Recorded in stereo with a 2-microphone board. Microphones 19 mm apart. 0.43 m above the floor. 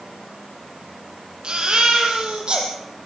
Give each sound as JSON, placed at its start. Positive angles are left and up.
{"t": 1.4, "sound": "a baby crying", "side_deg": -50, "distance_m": 5.5}